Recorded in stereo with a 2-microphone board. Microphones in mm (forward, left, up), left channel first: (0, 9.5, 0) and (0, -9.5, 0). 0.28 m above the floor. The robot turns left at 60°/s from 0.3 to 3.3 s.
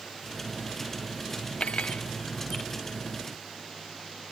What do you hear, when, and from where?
1.6 s cutlery clinking: 65° left (ahead or behind); by 2.1 s 85° left